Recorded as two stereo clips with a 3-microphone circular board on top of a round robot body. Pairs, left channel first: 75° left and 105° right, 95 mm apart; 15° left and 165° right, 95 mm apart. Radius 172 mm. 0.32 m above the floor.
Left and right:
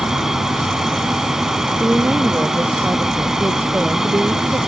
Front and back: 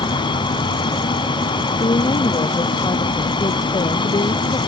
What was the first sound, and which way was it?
An aircraft, 20° right.